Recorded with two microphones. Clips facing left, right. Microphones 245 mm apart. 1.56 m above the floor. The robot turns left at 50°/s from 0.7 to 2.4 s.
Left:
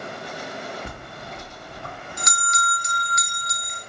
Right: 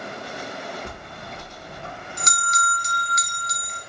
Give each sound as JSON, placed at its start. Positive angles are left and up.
{"t": 0.8, "sound": "a bell", "azimuth_deg": 10, "distance_m": 0.7}